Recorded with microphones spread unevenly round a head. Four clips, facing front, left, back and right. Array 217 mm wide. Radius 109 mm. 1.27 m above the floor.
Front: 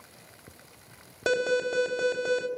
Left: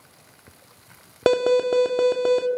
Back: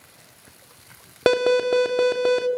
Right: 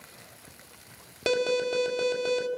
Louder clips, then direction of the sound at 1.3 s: Left 8 dB, back 8 dB; 135° left.